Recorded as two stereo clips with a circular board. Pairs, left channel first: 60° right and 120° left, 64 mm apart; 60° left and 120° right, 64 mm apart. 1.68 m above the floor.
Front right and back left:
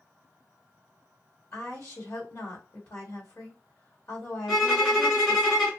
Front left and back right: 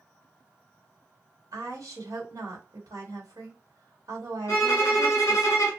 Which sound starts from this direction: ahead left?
A violin, at 4.5 s.